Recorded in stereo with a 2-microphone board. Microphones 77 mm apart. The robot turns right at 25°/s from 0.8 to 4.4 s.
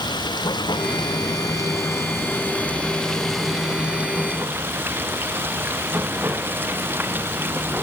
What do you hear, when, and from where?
0.0 s running water: 115° left; by 7.8 s 155° right